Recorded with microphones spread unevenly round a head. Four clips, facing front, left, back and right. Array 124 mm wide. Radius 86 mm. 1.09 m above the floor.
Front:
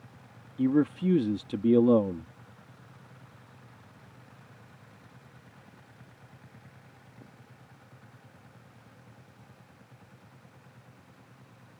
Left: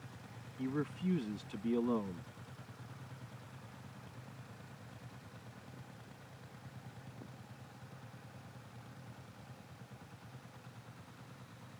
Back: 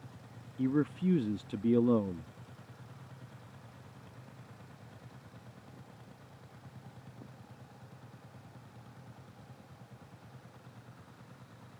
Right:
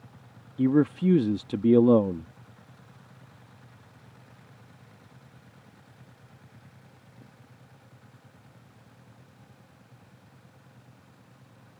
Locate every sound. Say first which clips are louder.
0.6 s a man speaking: right 16 dB, front 6 dB; 80° right